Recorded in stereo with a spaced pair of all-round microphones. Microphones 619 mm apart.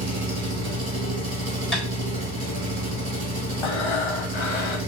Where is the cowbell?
I don't hear a cowbell.